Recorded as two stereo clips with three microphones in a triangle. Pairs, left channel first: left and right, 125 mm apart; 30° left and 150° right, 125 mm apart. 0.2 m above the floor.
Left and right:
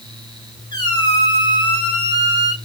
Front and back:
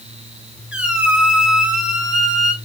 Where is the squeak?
135° left, 1.3 m.